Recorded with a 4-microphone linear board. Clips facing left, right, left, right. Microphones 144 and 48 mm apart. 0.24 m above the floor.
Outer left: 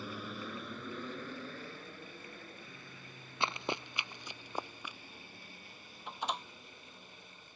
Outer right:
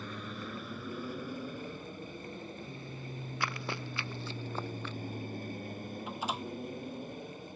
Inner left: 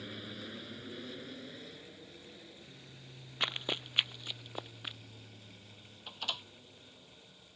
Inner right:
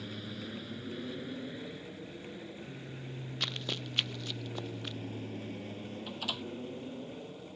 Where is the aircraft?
5° left (ahead or behind); by 7.6 s 55° right (ahead or behind).